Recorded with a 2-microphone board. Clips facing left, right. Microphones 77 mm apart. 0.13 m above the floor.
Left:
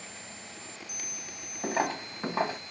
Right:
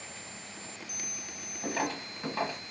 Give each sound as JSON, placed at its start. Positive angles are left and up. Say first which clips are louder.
{"t": 1.6, "sound": "footsteps", "louder": "left 3 dB", "side_deg": 25, "distance_m": 1.4}